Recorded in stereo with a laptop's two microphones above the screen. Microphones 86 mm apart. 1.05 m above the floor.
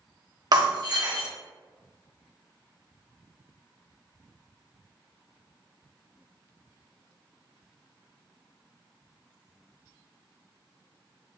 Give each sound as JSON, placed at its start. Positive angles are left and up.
{"t": 0.5, "sound": "breaking glass", "side_deg": -50, "distance_m": 0.9}